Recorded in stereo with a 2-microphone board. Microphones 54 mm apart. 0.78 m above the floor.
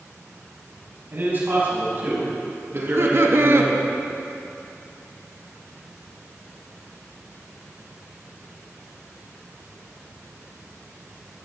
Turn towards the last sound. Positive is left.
turn(degrees=-50)  # may be behind; listen again after turning